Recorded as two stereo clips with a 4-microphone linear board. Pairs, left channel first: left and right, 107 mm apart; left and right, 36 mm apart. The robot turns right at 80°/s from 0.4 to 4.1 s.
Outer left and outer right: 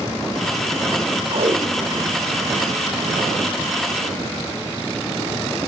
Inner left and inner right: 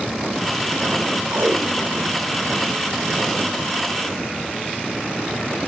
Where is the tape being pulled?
55° right (ahead or behind), 1.1 m; by 3.8 s 55° left (ahead or behind), 1.1 m.